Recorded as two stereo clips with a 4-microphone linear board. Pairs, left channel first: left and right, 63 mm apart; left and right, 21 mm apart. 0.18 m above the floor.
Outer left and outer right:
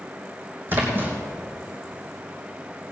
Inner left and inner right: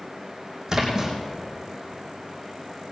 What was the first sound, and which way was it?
A splash, 30° right (ahead or behind).